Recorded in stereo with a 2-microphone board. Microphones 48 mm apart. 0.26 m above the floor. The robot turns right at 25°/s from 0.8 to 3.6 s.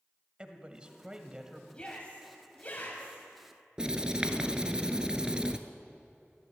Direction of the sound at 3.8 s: 15° right (ahead or behind).